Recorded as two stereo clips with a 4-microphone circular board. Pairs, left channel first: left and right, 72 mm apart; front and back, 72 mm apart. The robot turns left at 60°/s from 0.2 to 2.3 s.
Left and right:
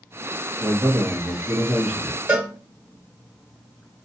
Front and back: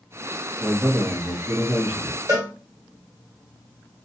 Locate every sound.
0.6 s a man speaking: 85° right, 0.9 m; by 2.2 s straight behind, 0.9 m
2.3 s a cowbell: 160° right, 1.9 m; by 2.5 s 165° right, 1.9 m